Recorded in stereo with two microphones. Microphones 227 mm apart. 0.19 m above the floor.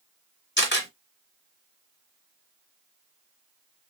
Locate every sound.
0.6 s a camera shutter: 50° left (ahead or behind), 3 m